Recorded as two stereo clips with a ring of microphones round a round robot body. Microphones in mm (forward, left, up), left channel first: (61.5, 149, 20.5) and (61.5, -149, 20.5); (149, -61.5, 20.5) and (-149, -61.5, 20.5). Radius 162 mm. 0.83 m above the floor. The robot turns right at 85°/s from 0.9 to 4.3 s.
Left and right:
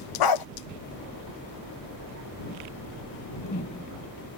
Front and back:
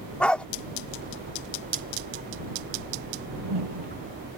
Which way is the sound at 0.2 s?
85° left.